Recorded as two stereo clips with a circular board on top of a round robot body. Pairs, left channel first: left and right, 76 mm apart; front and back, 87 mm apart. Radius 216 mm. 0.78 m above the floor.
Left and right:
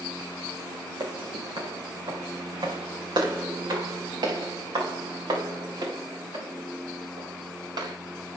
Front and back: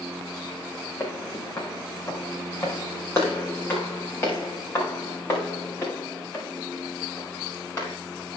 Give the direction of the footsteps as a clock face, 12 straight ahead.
2 o'clock.